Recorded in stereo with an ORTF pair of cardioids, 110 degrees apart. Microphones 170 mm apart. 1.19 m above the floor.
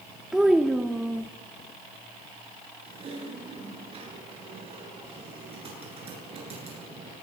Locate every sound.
0.3 s a child speaking: 5° right, 0.7 m
2.9 s typing on a keyboard: 35° right, 10 m